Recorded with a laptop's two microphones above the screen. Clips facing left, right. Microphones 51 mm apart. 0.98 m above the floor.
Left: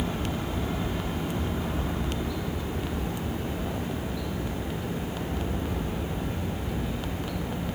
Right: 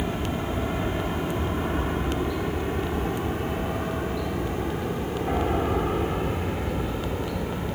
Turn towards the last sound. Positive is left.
turn(degrees=-65)  # may be behind; listen again after turning